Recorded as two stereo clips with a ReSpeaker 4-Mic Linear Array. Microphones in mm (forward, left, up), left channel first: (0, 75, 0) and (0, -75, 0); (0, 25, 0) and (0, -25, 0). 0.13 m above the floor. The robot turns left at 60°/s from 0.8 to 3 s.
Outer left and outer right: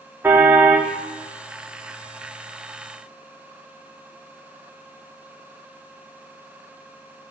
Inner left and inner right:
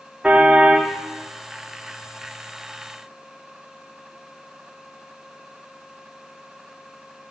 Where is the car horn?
15° right (ahead or behind), 2.5 m; by 0.9 s 10° right (ahead or behind), 2.5 m.